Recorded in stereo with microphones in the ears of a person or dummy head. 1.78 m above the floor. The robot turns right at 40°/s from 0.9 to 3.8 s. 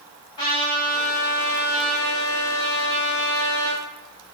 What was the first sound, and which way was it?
A trumpet, 155° left.